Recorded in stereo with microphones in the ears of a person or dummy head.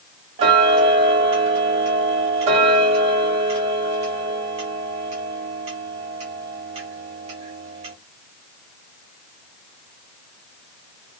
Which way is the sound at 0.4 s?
35° right (ahead or behind).